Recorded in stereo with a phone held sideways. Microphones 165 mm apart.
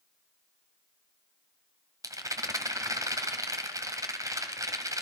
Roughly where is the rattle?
Right.